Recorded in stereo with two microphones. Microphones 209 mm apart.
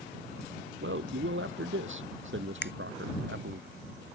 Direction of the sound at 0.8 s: 70° right (ahead or behind).